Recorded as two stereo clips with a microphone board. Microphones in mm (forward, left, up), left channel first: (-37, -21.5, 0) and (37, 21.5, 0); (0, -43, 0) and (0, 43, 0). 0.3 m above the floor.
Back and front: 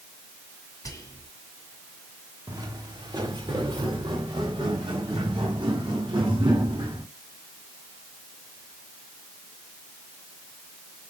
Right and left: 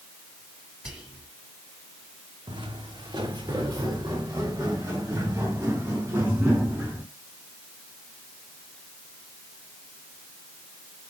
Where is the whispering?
170° left, 2.5 m.